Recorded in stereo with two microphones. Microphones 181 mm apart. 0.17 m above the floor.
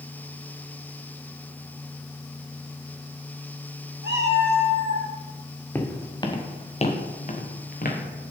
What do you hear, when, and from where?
4.0 s a cat meowing: 70° right (ahead or behind), 2.5 m; by 5.1 s 65° right (ahead or behind), 2.5 m
5.8 s footsteps: 10° left (ahead or behind), 1.5 m; by 8.0 s 55° left (ahead or behind), 2.5 m